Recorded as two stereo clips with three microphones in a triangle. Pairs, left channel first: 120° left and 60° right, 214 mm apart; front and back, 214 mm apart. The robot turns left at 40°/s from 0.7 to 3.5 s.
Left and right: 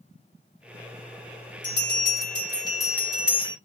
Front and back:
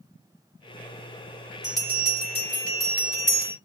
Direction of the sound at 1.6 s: 95° left.